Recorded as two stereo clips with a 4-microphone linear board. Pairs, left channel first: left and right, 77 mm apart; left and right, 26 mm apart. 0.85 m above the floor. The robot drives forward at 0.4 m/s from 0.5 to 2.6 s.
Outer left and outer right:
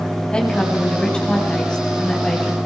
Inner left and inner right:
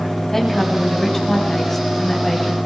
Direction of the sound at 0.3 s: 15° left (ahead or behind).